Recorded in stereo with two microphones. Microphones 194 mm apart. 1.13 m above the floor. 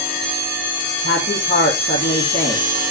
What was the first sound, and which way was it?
A woman speaking, 65° left (ahead or behind).